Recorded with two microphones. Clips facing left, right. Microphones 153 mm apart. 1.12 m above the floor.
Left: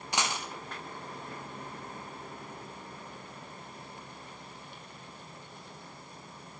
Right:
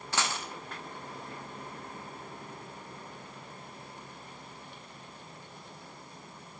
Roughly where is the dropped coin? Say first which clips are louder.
Left 1 dB; centre.